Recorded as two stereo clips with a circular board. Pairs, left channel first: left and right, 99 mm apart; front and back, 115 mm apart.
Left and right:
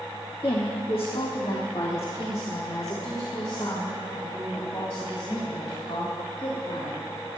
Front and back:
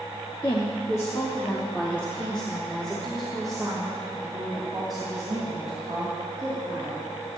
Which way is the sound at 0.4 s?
50° left.